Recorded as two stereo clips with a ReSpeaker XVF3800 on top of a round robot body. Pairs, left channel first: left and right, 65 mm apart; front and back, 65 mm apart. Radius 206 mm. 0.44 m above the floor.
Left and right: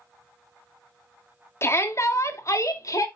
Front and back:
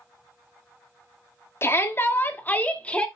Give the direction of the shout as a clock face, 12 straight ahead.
10 o'clock.